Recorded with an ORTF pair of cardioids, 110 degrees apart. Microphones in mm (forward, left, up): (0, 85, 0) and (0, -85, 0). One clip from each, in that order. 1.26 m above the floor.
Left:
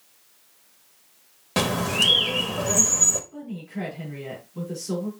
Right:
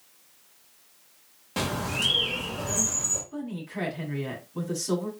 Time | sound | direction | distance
1.6 | a bird | 45° left | 1.2 m
3.3 | a woman speaking | 50° right | 3 m